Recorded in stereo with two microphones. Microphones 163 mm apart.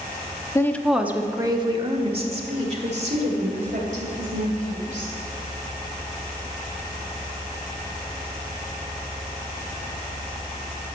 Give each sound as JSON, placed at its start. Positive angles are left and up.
{"t": 0.6, "sound": "a woman speaking", "side_deg": 20, "distance_m": 0.7}